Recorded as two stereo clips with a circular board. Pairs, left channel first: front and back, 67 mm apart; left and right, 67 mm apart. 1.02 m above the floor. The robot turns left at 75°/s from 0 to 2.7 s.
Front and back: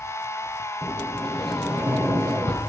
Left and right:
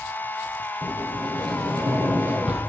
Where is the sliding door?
40° right, 8.5 m; by 2.6 s 175° right, 8.5 m.